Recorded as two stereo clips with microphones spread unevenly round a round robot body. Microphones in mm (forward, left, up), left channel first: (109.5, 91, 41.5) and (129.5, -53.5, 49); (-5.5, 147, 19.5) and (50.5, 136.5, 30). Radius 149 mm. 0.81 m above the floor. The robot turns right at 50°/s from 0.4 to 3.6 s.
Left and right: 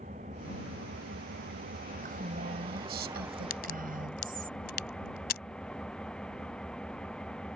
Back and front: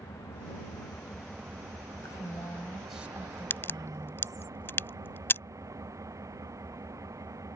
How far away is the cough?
I don't hear a cough.